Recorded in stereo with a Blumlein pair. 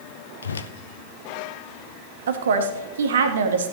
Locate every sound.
0.4 s a whoosh: 70° left, 0.7 m
2.3 s a woman speaking: 65° right, 1.4 m